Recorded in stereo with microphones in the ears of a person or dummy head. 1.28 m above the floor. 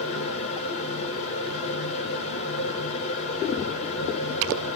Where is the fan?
40° left (ahead or behind), 1.5 m.